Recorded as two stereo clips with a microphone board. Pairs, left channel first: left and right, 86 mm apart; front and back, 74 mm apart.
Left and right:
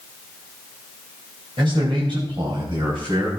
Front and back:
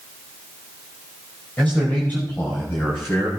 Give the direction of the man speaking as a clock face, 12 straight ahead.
2 o'clock.